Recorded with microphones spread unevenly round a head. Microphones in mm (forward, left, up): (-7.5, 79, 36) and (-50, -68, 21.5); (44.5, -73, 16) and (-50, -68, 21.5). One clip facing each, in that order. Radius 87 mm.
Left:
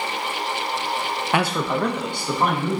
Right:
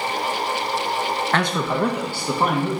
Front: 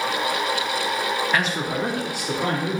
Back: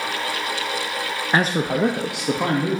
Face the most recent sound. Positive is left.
turn(degrees=175)